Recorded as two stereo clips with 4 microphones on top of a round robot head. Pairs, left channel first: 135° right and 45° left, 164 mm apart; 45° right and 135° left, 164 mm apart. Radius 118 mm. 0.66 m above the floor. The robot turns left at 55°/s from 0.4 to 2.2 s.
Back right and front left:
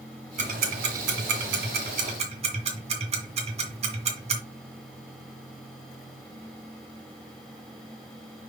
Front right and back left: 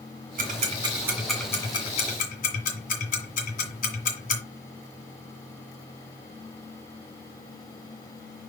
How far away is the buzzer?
No buzzer in this recording.